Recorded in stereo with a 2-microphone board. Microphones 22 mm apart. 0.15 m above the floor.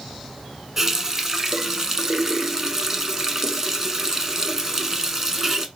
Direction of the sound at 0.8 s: 20° right (ahead or behind).